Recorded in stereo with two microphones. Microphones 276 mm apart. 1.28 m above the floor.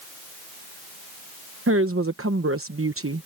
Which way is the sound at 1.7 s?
50° right (ahead or behind).